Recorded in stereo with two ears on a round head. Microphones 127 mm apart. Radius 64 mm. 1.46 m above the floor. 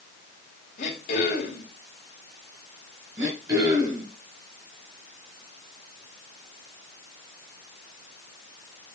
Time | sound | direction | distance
0.8 | throat clearing | 55° left (ahead or behind) | 2.5 m
3.2 | throat clearing | 25° right (ahead or behind) | 3.5 m